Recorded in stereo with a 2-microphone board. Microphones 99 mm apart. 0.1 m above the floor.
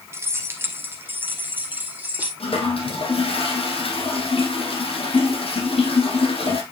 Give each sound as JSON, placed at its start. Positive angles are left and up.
{"t": 0.1, "sound": "keys jangling", "side_deg": -25, "distance_m": 1.2}
{"t": 2.4, "sound": "a toilet flushing", "side_deg": 75, "distance_m": 2.5}